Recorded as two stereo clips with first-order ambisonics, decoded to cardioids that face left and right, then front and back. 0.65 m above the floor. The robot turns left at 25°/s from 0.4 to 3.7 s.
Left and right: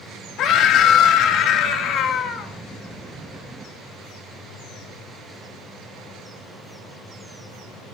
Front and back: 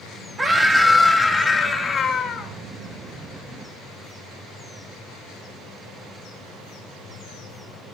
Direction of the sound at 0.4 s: 110° left.